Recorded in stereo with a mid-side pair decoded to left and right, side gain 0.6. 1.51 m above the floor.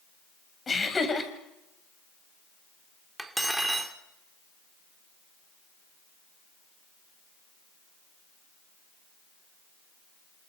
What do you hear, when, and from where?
0.7 s laughter: 25° left, 7.5 m
3.2 s cutlery clinking: 5° right, 3 m